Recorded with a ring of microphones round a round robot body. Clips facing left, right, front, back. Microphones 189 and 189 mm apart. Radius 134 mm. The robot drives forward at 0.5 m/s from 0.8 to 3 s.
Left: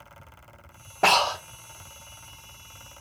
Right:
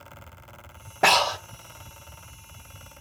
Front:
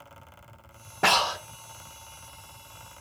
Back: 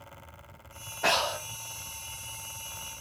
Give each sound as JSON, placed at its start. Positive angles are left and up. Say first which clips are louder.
{"t": 1.0, "sound": "breathing", "louder": "right 1 dB, front 2 dB", "azimuth_deg": -5, "distance_m": 0.8}